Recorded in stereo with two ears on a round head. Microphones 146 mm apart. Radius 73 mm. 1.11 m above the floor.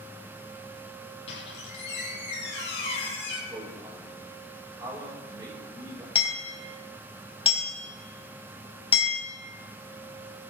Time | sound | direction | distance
1.3 | a squeak | 80° left | 5 m
3.5 | a man speaking | 25° right (ahead or behind) | 5.5 m
6.2 | hammering | 35° left (ahead or behind) | 3.5 m